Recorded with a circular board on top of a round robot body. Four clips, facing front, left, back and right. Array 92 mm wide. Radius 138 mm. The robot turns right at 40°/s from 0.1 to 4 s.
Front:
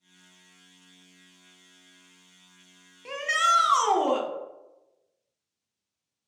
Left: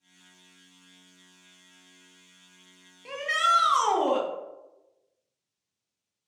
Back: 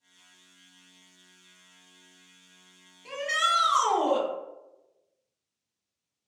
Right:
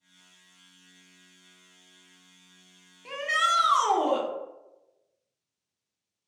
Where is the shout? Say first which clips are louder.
Left 1 dB, front 3 dB; 10° right, 1.0 m; by 4.3 s 30° left, 1.0 m.